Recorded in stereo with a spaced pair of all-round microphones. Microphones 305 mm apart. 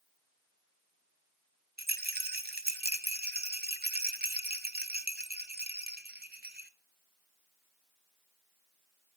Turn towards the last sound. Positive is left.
turn(degrees=-30)  # may be behind; listen again after turning